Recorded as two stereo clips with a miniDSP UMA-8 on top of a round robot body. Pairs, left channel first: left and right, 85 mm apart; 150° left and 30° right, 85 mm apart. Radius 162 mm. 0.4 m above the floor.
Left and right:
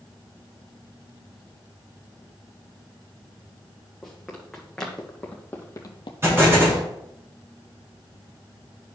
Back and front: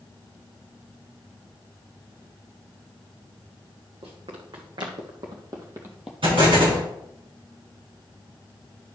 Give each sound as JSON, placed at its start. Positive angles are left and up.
{"t": 4.0, "sound": "running footsteps", "azimuth_deg": -5, "distance_m": 2.5}
{"t": 6.2, "sound": "an explosion", "azimuth_deg": -30, "distance_m": 4.5}